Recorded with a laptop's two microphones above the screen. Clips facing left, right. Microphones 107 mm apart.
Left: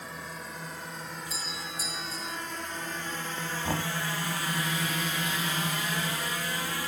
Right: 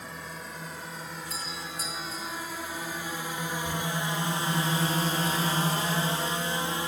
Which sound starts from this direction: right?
A doorbell, at 1.3 s.